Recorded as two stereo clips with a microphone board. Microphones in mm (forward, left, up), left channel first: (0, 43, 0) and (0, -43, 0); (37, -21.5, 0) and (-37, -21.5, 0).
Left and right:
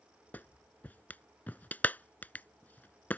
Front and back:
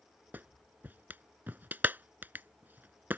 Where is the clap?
140° left.